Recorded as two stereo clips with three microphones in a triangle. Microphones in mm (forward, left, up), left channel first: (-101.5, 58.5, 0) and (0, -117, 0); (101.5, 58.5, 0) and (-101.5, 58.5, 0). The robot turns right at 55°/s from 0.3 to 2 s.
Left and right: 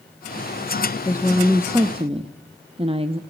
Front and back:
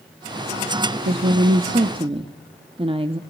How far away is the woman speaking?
About 0.9 m.